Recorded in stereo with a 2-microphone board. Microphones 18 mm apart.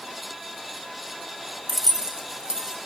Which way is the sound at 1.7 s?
5° right (ahead or behind).